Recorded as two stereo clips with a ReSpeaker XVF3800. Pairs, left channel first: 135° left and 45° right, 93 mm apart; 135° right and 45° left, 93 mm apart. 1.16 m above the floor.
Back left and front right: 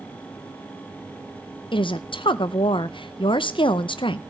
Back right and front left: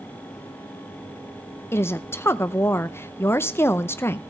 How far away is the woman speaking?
About 0.6 m.